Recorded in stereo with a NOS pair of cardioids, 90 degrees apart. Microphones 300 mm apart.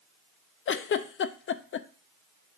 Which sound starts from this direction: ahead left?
A giggle, at 0.7 s.